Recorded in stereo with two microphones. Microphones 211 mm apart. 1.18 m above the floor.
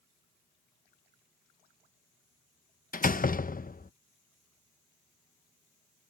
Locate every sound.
2.9 s a door slam: 40° left (ahead or behind)